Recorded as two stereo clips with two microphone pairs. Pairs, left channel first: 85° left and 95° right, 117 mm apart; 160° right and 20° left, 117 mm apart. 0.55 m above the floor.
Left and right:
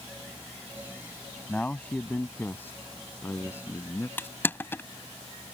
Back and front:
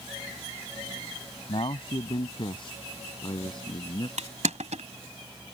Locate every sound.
1.5 s a man speaking: 165° left; by 4.1 s 150° left
4.2 s crushing: 10° left